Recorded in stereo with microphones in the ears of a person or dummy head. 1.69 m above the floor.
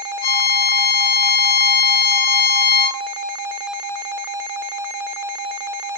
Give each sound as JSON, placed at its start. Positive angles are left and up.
{"t": 0.2, "sound": "a violin", "side_deg": 55, "distance_m": 1.9}